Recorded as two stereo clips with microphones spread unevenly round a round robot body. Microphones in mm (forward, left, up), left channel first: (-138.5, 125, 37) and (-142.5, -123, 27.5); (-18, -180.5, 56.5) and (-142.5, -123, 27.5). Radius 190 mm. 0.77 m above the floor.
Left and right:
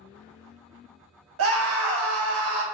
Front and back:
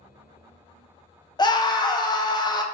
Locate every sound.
1.4 s a scream: 95° right, 0.8 m